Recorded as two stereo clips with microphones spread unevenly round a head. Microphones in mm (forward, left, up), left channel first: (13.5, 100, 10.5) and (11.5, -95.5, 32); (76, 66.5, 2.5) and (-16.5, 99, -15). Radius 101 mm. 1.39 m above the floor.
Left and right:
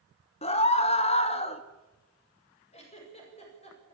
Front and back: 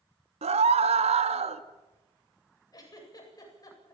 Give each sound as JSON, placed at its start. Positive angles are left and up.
{"t": 0.4, "sound": "a scream", "azimuth_deg": 155, "distance_m": 1.8}
{"t": 2.7, "sound": "a giggle", "azimuth_deg": 30, "distance_m": 8.5}